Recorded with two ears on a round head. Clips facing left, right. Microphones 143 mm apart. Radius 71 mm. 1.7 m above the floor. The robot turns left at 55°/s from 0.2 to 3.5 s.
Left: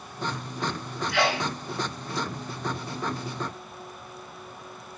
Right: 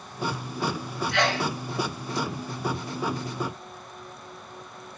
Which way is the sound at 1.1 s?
Centre (ahead or behind).